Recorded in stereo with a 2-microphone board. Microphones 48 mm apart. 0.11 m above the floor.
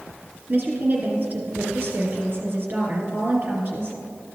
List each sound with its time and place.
0.5 s a woman speaking: 40° right (ahead or behind), 2.5 m